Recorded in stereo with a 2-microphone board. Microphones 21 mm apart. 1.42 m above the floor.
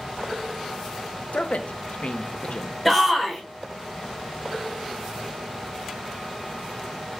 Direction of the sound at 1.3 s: 60° left (ahead or behind).